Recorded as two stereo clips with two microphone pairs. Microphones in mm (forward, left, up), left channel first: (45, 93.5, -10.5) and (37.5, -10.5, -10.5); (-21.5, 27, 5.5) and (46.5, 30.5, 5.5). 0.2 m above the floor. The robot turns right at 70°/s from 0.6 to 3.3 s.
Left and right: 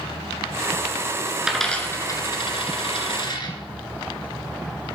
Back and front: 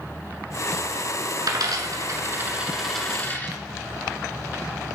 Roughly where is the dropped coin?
Ahead.